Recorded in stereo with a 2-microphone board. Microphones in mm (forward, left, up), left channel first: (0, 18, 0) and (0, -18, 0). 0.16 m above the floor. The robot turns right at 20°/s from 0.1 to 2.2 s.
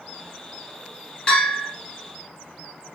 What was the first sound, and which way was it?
A bell, 25° left (ahead or behind).